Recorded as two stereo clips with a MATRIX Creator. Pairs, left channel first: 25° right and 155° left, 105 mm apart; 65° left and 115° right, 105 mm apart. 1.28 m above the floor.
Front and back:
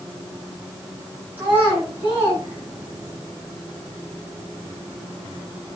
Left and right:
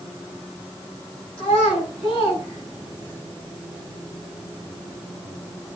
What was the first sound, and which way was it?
A child speaking, 85° left.